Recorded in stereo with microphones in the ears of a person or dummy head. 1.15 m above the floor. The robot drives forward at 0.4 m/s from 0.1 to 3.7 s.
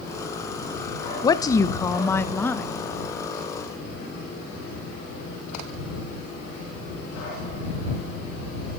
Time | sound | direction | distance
1.2 | a woman speaking | 20° left (ahead or behind) | 0.8 m